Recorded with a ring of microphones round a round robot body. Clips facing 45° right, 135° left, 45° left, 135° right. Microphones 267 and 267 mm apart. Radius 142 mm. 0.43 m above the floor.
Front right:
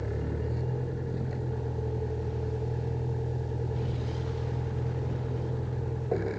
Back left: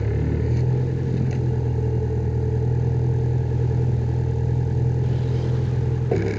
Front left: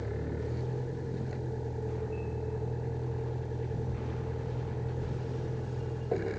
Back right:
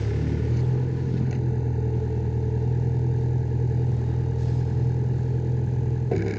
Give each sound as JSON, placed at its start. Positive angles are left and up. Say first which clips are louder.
{"t": 0.0, "sound": "a vehicle", "louder": "back left 8 dB, back right 7 dB", "azimuth_deg": 180}